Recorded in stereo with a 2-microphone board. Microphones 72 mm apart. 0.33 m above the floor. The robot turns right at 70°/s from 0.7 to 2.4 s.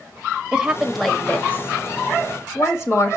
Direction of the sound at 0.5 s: 10° right (ahead or behind).